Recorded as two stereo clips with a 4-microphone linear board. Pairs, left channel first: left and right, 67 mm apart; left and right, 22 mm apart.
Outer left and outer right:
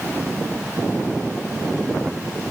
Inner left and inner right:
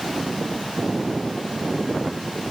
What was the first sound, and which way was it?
Only background noise.